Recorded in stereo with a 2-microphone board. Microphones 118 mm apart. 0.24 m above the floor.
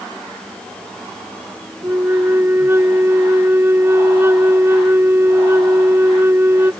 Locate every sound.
1.8 s a flute: 20° right (ahead or behind)